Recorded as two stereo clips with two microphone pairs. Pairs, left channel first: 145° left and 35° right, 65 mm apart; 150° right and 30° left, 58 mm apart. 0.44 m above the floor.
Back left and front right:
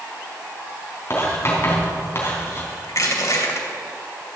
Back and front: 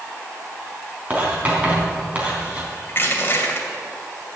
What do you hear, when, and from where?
1.1 s writing: 95° left, 3.5 m
2.9 s crushing: 165° left, 2.5 m